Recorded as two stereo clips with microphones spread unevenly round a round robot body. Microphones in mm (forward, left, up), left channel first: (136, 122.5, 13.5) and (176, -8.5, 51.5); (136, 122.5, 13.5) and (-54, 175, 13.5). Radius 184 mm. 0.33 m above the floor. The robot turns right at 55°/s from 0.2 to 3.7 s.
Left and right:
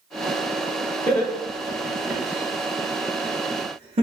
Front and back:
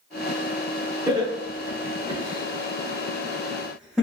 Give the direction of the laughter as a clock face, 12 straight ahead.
8 o'clock.